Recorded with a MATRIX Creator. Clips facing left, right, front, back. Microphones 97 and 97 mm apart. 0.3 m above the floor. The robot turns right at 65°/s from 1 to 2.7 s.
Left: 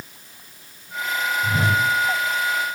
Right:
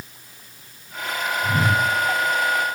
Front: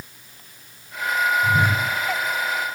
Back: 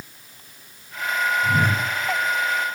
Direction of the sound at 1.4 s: 45° left.